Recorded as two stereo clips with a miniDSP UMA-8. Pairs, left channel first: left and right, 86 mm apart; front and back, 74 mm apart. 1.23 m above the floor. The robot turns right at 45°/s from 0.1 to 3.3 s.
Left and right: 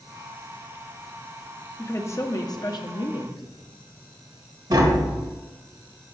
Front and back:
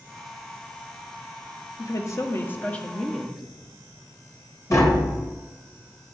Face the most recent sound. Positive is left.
turn(degrees=-45)